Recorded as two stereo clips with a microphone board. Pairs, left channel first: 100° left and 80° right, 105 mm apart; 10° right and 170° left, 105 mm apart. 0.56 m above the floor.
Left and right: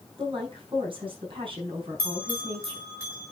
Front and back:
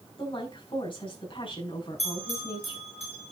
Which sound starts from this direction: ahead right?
A woman speaking, at 0.2 s.